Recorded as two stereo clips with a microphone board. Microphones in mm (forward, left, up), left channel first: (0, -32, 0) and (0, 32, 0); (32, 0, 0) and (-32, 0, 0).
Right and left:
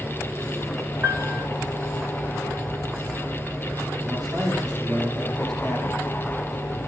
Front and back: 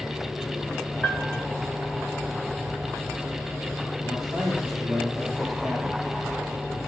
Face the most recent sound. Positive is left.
turn(degrees=95)